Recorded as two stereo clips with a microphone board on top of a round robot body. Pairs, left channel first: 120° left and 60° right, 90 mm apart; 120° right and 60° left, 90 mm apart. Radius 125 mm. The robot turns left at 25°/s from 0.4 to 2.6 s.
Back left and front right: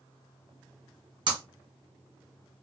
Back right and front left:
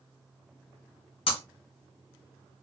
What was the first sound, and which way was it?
Breaking glass, 100° right.